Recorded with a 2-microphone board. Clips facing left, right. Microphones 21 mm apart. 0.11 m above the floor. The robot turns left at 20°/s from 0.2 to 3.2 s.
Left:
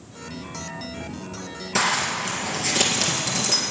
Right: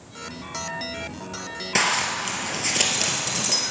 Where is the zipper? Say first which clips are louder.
Even; 25° right (ahead or behind), 2.5 m; by 3.6 s centre (ahead or behind), 2.5 m.